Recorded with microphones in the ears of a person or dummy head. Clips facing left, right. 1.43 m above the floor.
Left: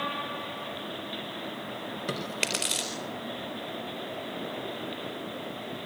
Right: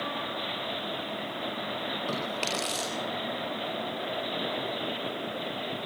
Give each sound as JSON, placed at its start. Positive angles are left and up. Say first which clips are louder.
{"t": 2.1, "sound": "chewing", "louder": "even", "side_deg": 20, "distance_m": 4.0}